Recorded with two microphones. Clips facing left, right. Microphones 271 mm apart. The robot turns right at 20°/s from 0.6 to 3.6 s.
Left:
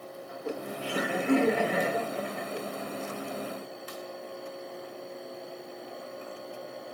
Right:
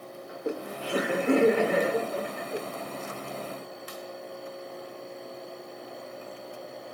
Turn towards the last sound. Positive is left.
turn(degrees=-45)